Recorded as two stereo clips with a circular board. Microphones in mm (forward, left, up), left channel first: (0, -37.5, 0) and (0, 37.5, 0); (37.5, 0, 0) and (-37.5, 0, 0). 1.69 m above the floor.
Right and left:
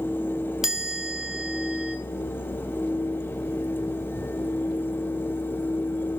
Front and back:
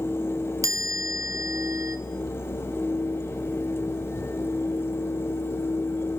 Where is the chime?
170° left, 1.6 m.